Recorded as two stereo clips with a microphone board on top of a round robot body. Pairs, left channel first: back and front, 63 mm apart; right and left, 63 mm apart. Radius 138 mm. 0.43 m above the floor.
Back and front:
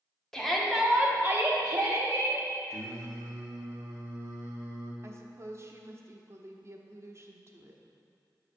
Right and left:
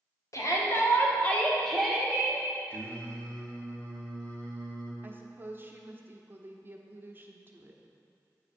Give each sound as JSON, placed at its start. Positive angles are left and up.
{"t": 0.3, "sound": "a shout", "azimuth_deg": -100, "distance_m": 2.0}
{"t": 2.7, "sound": "singing", "azimuth_deg": -30, "distance_m": 1.6}
{"t": 5.0, "sound": "a woman speaking", "azimuth_deg": 35, "distance_m": 1.2}